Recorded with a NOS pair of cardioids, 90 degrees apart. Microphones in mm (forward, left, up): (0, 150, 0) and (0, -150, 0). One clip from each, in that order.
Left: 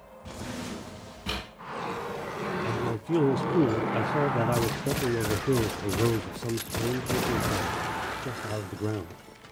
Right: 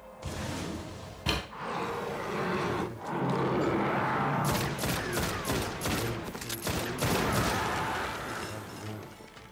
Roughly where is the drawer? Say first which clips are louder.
Right 1 dB; ahead right.